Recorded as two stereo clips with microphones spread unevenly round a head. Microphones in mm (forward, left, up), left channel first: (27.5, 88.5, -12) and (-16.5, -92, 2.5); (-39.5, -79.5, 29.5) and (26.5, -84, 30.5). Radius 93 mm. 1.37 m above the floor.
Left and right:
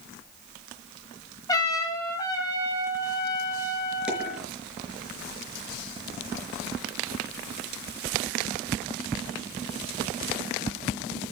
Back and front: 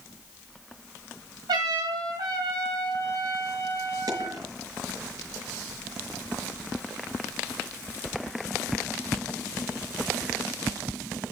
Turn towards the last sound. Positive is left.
turn(degrees=-20)